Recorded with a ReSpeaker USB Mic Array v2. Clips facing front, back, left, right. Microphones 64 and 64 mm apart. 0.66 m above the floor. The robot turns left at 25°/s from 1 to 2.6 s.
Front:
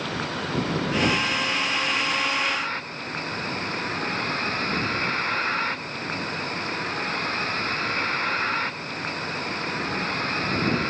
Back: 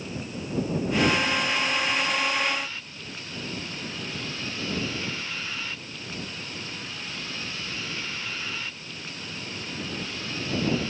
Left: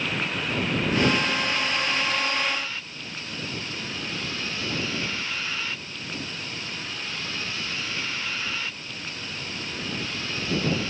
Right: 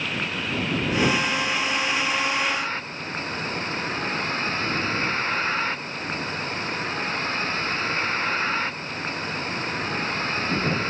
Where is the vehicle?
Straight ahead; by 10.9 s 40° right.